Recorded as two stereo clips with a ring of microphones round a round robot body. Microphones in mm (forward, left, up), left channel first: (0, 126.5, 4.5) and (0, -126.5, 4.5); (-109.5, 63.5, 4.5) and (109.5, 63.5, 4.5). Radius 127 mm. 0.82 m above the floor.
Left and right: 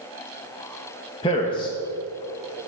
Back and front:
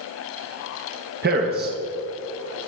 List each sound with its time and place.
1.2 s a man speaking: 25° left, 0.7 m